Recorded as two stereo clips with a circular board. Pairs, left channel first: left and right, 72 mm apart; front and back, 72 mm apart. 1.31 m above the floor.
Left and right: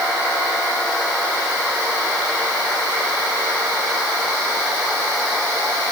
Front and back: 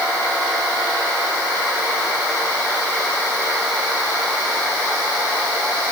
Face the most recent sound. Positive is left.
No sound to turn to.